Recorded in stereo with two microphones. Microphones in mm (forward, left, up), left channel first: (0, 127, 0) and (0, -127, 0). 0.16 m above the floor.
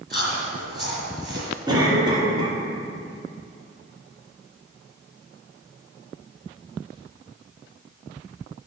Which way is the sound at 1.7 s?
15° right (ahead or behind).